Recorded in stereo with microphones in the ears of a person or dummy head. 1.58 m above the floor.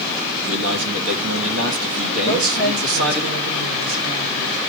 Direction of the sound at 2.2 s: 90° right.